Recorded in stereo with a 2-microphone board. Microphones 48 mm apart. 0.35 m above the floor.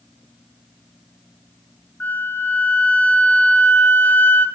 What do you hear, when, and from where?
2.0 s a flute: 45° left (ahead or behind), 1.6 m